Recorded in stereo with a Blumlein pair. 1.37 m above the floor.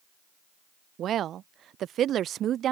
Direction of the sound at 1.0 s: 30° right.